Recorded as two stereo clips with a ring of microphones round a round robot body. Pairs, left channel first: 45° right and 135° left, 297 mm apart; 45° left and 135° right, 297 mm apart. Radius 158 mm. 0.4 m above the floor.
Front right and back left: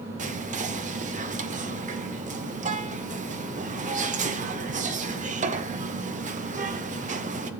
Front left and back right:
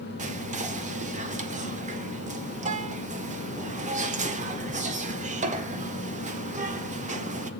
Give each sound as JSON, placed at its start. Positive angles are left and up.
{"t": 0.2, "sound": "whispering", "azimuth_deg": 180, "distance_m": 1.0}